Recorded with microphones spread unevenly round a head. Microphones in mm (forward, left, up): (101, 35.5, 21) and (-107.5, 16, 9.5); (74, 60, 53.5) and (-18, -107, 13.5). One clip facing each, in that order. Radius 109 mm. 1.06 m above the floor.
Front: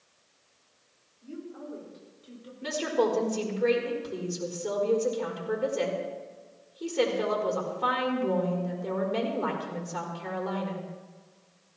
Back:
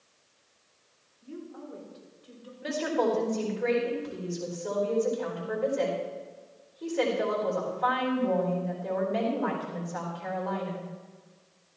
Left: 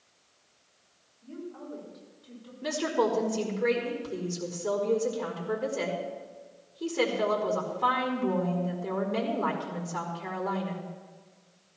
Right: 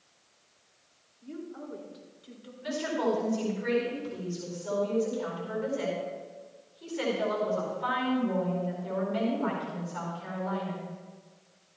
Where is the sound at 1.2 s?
65° right, 5 m; by 2.5 s 60° right, 4.5 m.